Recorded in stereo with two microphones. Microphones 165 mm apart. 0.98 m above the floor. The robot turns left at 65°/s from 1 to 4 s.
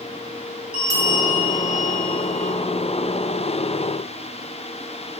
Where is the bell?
100° right, 2.0 m; by 2.5 s 165° left, 2.0 m.